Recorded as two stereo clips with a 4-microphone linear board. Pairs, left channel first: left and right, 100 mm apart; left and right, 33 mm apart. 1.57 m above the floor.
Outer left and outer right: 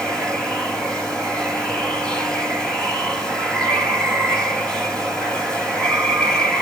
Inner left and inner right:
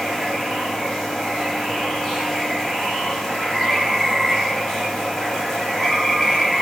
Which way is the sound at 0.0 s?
10° left (ahead or behind).